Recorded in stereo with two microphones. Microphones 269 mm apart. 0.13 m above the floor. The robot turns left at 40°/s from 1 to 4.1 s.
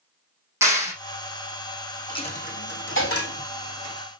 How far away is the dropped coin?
About 2.5 m.